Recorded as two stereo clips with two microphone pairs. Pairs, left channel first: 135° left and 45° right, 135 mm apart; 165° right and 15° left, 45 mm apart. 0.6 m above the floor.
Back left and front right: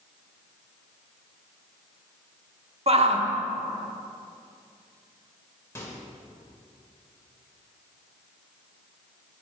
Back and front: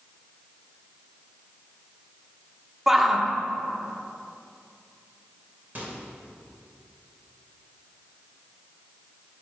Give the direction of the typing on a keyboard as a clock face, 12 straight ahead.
No typing on a keyboard in this recording.